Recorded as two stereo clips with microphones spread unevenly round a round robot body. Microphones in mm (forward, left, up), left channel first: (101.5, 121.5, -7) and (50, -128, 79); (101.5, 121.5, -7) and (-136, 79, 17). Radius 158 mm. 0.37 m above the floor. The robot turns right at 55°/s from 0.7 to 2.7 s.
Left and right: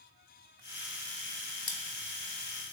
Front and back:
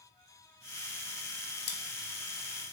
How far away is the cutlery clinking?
About 0.7 m.